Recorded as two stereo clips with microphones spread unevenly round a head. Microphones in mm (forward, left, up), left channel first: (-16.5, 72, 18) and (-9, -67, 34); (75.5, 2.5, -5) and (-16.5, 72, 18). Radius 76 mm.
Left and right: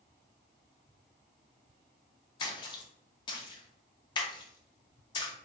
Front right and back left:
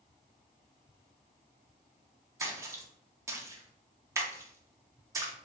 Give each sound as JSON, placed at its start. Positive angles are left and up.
{"t": 2.4, "sound": "a splash", "azimuth_deg": 75, "distance_m": 0.6}